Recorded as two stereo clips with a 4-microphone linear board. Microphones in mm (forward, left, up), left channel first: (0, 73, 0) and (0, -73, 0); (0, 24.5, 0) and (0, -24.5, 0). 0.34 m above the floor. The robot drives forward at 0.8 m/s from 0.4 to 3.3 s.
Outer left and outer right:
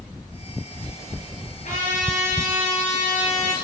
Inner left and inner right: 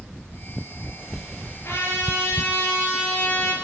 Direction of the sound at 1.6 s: 55° left (ahead or behind).